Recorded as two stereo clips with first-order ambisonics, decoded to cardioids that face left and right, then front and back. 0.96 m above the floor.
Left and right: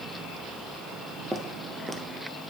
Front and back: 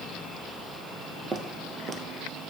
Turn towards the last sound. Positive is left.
turn(degrees=-160)